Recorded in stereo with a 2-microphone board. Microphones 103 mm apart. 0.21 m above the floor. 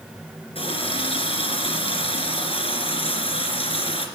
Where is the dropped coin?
I don't hear a dropped coin.